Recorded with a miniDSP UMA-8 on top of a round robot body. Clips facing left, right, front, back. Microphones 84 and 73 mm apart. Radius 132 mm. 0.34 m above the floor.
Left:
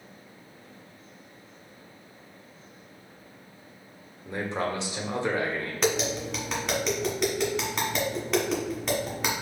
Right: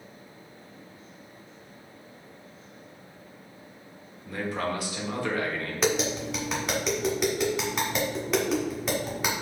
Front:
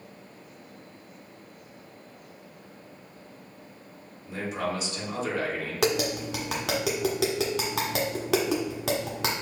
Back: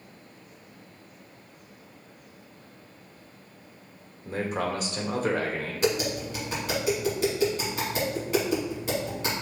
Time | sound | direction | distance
4.2 | a man speaking | 150° left | 1.4 m
5.8 | tapping | straight ahead | 1.5 m